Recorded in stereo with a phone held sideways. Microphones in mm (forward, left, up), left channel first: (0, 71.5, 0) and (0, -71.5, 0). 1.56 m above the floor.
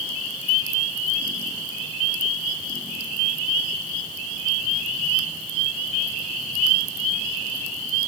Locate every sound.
Only background noise.